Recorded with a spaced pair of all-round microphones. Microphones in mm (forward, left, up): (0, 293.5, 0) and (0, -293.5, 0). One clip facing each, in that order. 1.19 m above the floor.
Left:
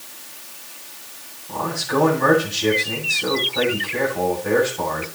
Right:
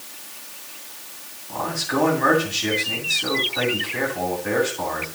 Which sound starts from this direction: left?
A man speaking, at 1.5 s.